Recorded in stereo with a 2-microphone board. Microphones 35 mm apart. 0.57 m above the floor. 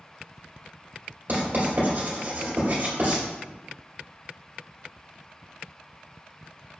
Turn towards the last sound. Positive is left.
turn(degrees=-55)  # may be behind; listen again after turning